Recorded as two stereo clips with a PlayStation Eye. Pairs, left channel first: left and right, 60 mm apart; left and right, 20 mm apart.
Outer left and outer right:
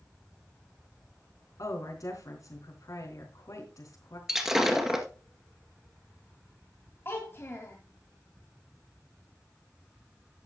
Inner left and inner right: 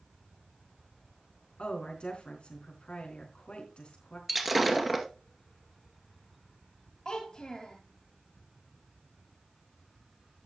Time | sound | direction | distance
1.6 | a woman speaking | 70° left (ahead or behind) | 4 m
4.3 | breaking glass | 10° right (ahead or behind) | 1.8 m
7.0 | a child speaking | 40° left (ahead or behind) | 1.7 m